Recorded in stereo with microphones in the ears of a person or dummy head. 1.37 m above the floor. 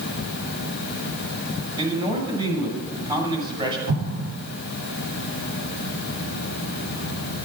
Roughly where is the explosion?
Right.